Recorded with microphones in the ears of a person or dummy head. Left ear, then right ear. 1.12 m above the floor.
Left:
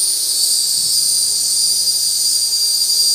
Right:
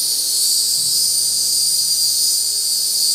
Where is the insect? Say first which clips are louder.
Left 1 dB; 15° left (ahead or behind), 0.9 m.